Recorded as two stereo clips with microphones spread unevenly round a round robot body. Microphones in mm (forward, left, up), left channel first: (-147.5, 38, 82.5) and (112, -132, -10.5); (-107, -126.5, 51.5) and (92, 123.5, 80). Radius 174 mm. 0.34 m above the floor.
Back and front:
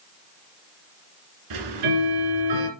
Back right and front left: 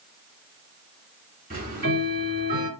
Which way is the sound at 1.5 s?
15° right.